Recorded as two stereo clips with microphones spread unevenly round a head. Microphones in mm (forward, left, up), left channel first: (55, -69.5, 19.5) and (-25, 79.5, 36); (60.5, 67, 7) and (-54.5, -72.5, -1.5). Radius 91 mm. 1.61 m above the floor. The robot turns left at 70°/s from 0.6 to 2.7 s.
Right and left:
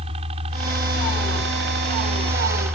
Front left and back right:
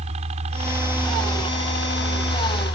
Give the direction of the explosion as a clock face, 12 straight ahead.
I don't hear an explosion.